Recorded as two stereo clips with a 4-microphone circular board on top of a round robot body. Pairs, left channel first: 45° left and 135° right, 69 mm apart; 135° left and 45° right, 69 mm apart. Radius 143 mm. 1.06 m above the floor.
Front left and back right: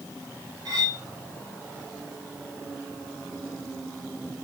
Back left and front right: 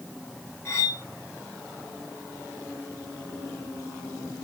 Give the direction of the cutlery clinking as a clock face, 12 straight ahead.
6 o'clock.